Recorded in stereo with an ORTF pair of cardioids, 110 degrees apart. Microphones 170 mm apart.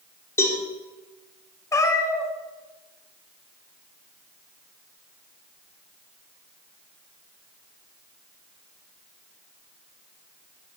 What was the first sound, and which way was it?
A cowbell, 15° left.